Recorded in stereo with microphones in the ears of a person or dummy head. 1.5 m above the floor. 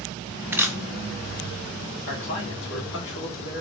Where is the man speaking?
70° left (ahead or behind), 2 m.